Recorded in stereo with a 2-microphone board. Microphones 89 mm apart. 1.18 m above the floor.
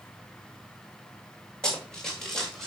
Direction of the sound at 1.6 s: 10° left (ahead or behind).